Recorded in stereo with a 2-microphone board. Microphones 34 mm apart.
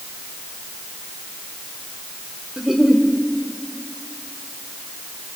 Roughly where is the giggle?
Centre.